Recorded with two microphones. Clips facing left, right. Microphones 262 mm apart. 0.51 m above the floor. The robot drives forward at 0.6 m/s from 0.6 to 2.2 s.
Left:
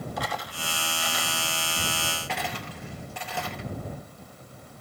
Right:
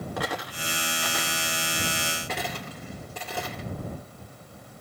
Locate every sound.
0.2 s a dropped coin: 70° right (ahead or behind), 1.5 m; by 3.7 s 45° right (ahead or behind), 2 m